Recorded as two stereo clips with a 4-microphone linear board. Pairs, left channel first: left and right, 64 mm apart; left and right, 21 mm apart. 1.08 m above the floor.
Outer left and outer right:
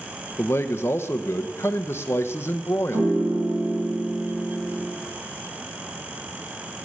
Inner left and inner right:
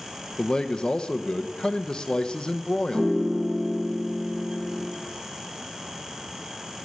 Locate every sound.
0.4 s a man speaking: 40° left (ahead or behind), 0.8 m
2.9 s a piano: 60° right (ahead or behind), 5.5 m